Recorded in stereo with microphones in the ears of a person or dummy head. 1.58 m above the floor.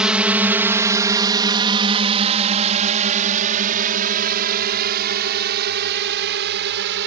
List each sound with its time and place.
0.0 s a drone: 5° right (ahead or behind); by 7.1 s 65° right (ahead or behind)